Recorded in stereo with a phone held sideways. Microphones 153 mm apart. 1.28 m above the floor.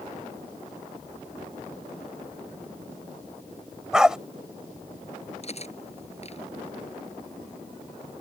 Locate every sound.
3.9 s a dog barking: 5° right (ahead or behind)
5.4 s cutlery clinking: 45° left (ahead or behind)